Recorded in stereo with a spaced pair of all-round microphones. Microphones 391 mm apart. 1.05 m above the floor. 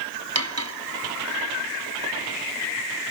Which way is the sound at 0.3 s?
40° right (ahead or behind).